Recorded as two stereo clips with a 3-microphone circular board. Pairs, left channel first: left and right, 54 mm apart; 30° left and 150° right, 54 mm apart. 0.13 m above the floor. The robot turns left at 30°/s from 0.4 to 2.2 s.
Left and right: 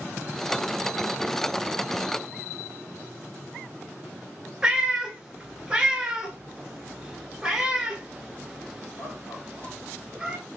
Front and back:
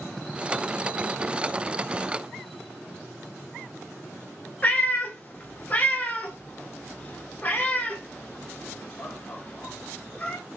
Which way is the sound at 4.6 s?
15° right.